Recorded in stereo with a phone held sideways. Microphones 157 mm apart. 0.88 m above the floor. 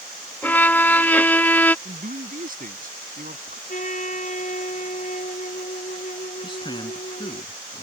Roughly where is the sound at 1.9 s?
Right.